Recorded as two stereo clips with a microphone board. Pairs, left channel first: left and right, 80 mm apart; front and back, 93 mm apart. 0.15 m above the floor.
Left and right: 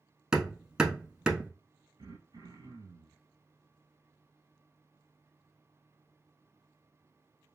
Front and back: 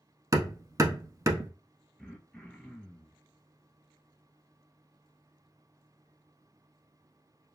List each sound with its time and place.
0.3 s hammering: 165° right, 0.6 m
2.0 s throat clearing: 85° right, 0.8 m